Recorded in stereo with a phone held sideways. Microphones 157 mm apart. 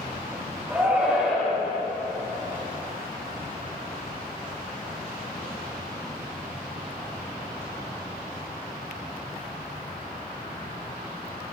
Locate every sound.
0.7 s a shout: 10° right (ahead or behind), 1.6 m